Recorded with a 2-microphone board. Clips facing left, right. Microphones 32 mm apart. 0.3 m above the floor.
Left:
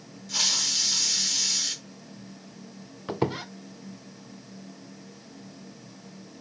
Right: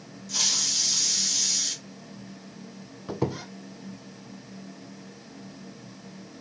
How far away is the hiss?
About 1.2 m.